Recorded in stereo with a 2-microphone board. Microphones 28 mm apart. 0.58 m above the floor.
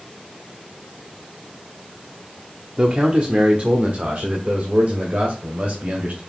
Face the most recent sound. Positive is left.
turn(degrees=-60)  # may be behind; listen again after turning